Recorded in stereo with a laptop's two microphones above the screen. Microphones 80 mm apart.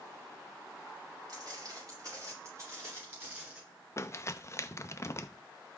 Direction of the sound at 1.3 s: 50° right (ahead or behind).